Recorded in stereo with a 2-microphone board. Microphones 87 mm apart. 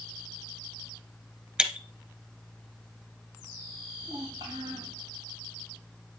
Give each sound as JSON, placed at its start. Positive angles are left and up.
{"t": 1.6, "sound": "breaking glass", "side_deg": -10, "distance_m": 1.2}
{"t": 4.0, "sound": "a child speaking", "side_deg": -50, "distance_m": 3.0}